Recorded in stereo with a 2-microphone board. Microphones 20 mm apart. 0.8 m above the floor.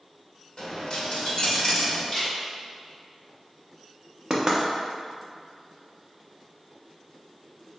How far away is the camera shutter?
About 1.0 m.